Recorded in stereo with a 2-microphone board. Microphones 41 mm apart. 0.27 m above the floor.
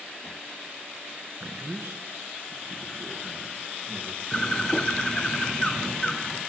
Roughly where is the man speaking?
Right.